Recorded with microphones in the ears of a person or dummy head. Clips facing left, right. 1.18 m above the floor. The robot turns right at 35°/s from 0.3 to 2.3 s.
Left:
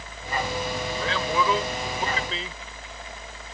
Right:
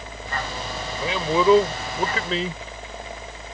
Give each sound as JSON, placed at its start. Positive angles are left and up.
{"t": 1.0, "sound": "a man speaking", "azimuth_deg": -170}